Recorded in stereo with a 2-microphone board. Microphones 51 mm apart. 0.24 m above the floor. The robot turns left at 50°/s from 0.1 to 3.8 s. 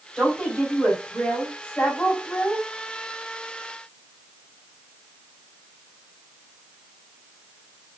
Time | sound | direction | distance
0.2 | a woman speaking | 150° left | 1.6 m